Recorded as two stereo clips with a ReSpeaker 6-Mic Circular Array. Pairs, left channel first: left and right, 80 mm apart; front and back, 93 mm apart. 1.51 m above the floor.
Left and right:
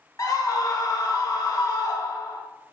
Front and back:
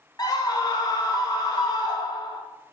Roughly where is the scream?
Ahead left.